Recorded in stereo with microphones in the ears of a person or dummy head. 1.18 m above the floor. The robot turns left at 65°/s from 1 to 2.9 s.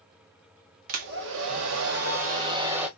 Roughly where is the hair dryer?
Ahead right.